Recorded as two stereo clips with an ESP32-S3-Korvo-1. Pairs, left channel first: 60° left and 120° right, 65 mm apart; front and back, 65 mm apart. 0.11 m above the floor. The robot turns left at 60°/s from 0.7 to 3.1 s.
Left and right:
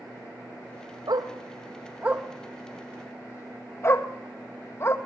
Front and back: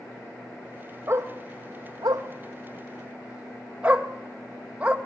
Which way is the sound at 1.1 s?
130° right.